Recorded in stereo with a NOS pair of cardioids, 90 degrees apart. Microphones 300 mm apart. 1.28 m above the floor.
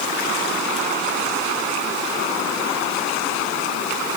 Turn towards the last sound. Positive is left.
No sound to turn to.